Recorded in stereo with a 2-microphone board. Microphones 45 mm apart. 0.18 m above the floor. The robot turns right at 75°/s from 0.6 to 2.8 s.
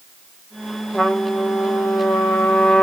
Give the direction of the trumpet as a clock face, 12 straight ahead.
12 o'clock.